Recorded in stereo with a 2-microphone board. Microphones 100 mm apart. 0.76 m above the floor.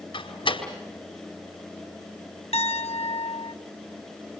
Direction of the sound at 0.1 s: 60° left (ahead or behind).